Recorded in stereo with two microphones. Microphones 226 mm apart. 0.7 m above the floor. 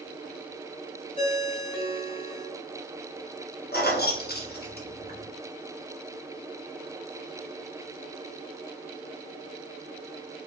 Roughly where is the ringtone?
Left.